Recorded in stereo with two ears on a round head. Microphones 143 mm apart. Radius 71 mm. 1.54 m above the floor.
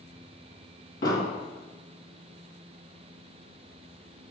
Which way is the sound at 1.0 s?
60° left (ahead or behind).